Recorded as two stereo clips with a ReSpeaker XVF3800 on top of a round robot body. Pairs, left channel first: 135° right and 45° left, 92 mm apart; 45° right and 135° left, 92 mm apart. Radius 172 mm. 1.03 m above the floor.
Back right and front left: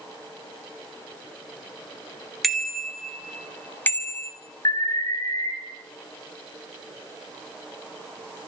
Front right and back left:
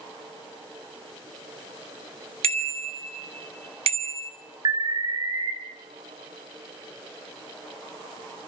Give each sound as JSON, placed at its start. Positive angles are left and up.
{"t": 2.4, "sound": "a bicycle bell", "azimuth_deg": 135, "distance_m": 2.0}
{"t": 4.7, "sound": "an alarm", "azimuth_deg": 180, "distance_m": 4.0}